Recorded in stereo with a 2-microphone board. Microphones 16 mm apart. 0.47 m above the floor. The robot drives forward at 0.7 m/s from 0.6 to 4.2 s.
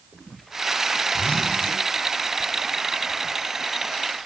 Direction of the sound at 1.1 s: 80° left.